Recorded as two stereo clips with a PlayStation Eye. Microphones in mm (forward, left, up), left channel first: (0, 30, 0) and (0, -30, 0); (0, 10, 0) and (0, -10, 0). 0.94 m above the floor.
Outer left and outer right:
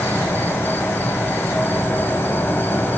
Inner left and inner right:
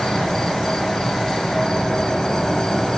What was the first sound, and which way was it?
An insect, 35° left (ahead or behind).